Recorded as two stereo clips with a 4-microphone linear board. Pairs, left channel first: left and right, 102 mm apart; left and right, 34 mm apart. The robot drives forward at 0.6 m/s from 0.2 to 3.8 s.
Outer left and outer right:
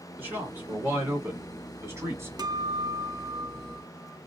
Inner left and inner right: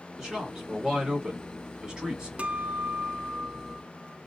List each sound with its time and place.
0.2 s a man speaking: 20° right (ahead or behind), 2.5 m; by 2.3 s 25° right (ahead or behind), 1.7 m
2.4 s a guitar: 40° right (ahead or behind), 0.5 m; by 4.2 s 25° right (ahead or behind), 0.8 m